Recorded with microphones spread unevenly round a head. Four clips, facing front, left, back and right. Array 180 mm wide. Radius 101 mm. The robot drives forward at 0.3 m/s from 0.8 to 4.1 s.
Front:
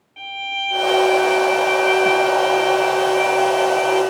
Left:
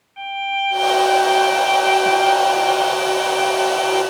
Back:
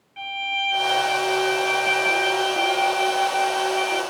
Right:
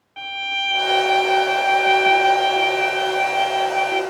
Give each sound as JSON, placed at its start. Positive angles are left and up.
{"t": 0.2, "sound": "a violin", "azimuth_deg": -60, "distance_m": 0.7}